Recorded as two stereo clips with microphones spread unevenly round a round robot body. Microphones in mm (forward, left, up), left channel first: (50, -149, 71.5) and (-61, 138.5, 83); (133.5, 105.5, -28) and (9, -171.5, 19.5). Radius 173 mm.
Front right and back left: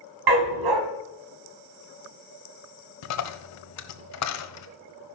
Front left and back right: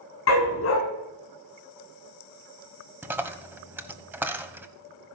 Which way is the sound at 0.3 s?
120° left.